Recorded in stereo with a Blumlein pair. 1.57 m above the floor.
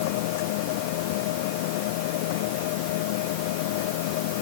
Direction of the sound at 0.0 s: 50° left.